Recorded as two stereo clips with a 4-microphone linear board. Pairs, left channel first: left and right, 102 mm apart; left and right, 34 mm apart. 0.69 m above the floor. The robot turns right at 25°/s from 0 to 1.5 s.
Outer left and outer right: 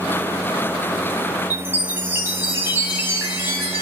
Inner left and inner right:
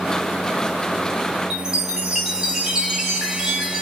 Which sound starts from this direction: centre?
A chime, at 1.5 s.